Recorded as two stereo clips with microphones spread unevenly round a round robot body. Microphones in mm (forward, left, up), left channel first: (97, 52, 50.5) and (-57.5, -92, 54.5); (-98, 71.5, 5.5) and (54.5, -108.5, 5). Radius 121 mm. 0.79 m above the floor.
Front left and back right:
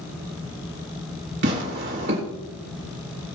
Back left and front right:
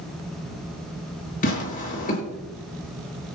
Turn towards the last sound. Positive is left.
turn(degrees=-175)